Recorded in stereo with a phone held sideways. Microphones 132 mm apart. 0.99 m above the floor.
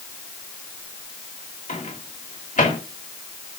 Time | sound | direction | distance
1.7 | a microwave | 80° left | 2 m